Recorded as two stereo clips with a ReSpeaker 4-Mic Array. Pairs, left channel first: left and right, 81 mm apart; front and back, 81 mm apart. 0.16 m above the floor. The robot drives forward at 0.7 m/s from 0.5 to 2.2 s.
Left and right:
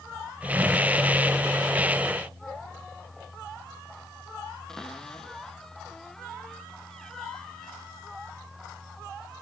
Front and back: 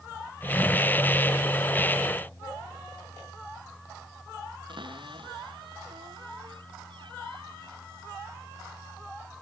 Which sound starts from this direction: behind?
A cupboard door, at 4.7 s.